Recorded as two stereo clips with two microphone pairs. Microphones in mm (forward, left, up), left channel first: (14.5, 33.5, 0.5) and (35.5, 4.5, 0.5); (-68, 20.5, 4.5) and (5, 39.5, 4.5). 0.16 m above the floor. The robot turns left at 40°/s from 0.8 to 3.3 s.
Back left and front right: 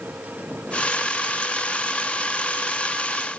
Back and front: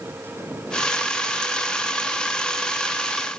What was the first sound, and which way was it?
Only background noise.